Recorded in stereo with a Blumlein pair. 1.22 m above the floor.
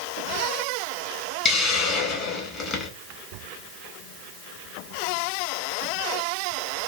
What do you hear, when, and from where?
1.4 s a hiss: 25° left, 1.7 m